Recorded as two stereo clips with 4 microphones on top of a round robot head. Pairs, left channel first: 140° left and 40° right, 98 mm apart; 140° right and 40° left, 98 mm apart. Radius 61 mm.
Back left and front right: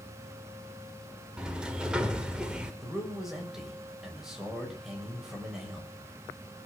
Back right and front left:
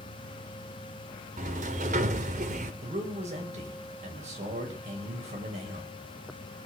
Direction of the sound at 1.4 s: 40° left.